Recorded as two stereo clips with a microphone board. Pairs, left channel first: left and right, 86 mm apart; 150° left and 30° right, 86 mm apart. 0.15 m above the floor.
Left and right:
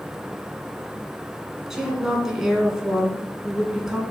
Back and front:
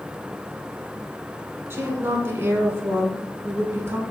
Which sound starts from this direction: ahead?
A woman speaking, at 1.7 s.